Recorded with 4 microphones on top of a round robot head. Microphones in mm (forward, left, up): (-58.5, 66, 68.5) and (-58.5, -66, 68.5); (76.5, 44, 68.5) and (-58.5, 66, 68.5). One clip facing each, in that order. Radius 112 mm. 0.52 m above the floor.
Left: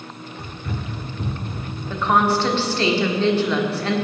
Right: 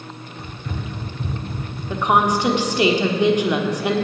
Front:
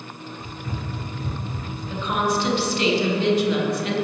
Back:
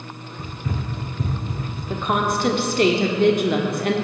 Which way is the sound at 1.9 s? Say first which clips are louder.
Right 1 dB, back 1 dB; 160° right.